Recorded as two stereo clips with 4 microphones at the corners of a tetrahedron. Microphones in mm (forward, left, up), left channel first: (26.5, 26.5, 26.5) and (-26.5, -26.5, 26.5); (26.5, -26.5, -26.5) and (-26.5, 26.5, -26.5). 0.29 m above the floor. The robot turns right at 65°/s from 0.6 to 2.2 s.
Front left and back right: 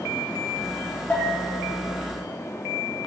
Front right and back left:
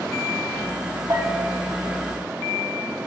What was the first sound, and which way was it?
A bell, 110° left.